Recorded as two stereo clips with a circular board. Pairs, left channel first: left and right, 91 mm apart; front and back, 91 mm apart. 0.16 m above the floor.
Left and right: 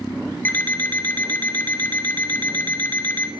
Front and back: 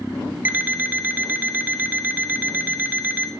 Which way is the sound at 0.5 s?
135° left.